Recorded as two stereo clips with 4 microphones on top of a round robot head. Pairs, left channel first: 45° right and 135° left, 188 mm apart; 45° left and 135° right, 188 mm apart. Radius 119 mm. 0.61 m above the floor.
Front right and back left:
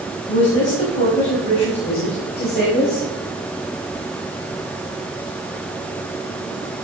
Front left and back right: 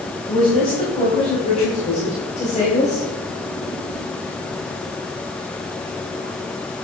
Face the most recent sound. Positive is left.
turn(degrees=-5)